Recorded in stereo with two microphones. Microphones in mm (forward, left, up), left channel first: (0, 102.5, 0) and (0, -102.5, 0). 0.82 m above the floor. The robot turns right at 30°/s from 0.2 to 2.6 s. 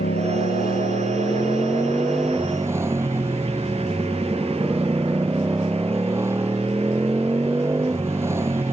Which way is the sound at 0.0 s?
120° left.